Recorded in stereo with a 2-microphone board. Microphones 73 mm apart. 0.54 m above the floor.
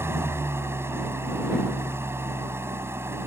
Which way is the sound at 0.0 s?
35° right (ahead or behind).